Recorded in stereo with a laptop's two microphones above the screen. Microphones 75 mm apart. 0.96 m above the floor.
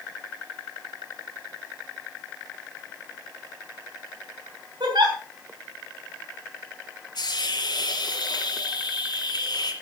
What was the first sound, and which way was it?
A giggle, 75° right (ahead or behind).